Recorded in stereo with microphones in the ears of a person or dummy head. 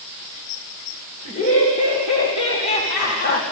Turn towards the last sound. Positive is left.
turn(degrees=60)  # may be behind; listen again after turning